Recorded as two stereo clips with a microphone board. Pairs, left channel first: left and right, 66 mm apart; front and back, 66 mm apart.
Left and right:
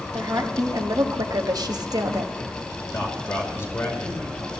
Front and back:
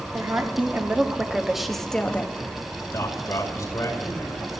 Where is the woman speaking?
125° right, 2.0 m; by 2.3 s 65° right, 1.1 m.